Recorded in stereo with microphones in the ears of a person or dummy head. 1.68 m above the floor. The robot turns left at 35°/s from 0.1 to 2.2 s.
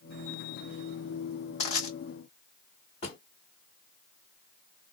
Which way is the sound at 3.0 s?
45° left (ahead or behind).